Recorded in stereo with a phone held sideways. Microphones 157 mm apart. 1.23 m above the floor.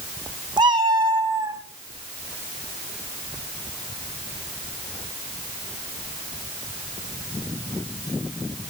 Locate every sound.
0.6 s a cat meowing: 30° right (ahead or behind), 1.2 m; by 1.6 s 20° right (ahead or behind), 1.5 m